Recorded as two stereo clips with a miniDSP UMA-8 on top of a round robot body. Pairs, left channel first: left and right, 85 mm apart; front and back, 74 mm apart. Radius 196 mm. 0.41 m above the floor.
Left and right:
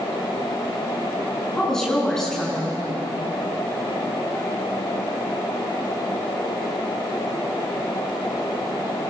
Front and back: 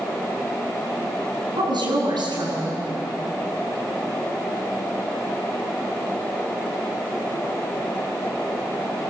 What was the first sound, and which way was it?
A woman speaking, 175° left.